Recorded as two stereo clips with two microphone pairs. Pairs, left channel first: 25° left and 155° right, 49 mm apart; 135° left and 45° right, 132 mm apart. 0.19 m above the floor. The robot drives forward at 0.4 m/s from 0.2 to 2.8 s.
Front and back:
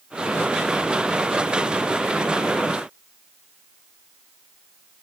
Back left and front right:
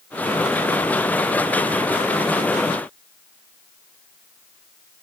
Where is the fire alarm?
No fire alarm in this recording.